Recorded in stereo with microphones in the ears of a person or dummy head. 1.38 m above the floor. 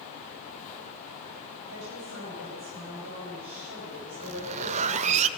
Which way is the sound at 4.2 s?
35° right (ahead or behind).